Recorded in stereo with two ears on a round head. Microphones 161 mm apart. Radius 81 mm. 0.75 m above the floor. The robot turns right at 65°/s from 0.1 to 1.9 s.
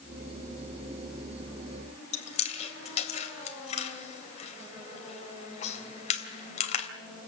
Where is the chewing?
40° left (ahead or behind), 3 m.